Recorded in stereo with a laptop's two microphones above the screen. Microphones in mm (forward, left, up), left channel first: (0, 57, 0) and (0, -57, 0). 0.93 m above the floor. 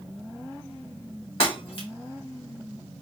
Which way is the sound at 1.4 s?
50° left (ahead or behind).